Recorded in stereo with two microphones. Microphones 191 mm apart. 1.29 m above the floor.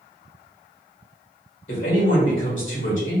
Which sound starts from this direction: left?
A man speaking, at 1.7 s.